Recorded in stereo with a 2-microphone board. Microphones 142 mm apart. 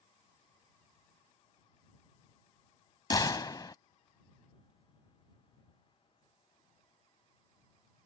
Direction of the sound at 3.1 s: 30° left (ahead or behind).